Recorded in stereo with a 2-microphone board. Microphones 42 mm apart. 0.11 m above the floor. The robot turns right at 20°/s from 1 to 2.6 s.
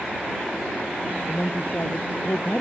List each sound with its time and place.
1.3 s a woman speaking: 55° left (ahead or behind); by 2.6 s 45° left (ahead or behind)